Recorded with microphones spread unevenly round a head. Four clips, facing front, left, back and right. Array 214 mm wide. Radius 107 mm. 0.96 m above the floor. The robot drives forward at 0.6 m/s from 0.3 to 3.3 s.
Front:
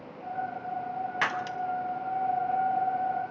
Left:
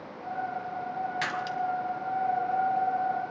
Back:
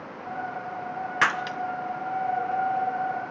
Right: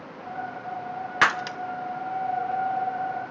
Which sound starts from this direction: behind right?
Breaking glass, at 1.2 s.